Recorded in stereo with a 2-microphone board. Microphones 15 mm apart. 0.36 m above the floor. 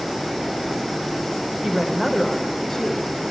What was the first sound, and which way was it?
A woman speaking, 30° right (ahead or behind).